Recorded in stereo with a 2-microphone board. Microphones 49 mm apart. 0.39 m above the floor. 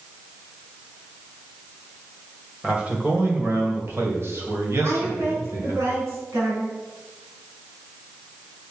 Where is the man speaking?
25° right (ahead or behind), 1.9 m; by 5.8 s 70° right (ahead or behind), 3.5 m.